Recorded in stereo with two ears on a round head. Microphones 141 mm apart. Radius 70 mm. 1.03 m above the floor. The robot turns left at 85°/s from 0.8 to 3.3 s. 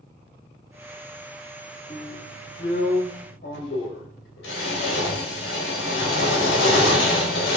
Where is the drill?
160° right, 6 m; by 7.6 s 80° left, 6 m.